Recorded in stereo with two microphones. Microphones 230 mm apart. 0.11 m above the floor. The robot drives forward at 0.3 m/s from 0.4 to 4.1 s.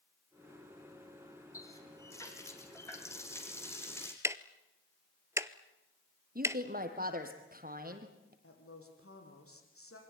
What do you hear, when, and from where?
1.5 s a running tap: 15° left (ahead or behind), 3 m; by 4.1 s 10° left (ahead or behind), 4 m
4.2 s ticking: 10° right (ahead or behind), 0.8 m
6.3 s a woman speaking: 40° right (ahead or behind), 3 m
8.4 s a woman speaking: 70° left (ahead or behind), 5.5 m